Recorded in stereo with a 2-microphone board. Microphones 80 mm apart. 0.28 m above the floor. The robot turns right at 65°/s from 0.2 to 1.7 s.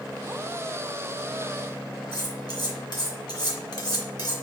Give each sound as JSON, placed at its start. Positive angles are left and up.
{"t": 2.1, "sound": "cutlery clinking", "side_deg": 60, "distance_m": 1.6}